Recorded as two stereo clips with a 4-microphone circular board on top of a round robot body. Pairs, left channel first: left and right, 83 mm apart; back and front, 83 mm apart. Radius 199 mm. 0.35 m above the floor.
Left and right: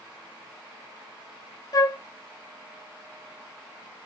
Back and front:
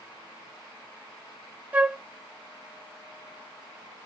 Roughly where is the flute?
Ahead left.